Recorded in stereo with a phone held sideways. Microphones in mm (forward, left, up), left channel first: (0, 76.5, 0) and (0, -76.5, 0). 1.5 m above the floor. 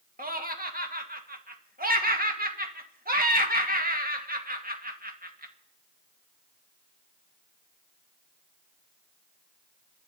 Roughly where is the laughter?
Right.